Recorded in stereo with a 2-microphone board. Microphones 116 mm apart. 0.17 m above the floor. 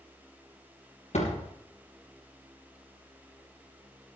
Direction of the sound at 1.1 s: 75° left (ahead or behind).